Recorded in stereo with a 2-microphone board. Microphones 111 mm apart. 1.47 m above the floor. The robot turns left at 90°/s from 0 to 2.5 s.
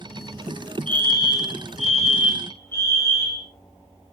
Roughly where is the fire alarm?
Behind.